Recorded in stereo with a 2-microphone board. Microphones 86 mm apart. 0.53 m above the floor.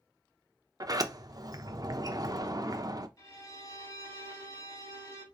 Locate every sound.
0.8 s a sliding door: 45° right (ahead or behind), 0.7 m
3.2 s a violin: 45° left (ahead or behind), 2 m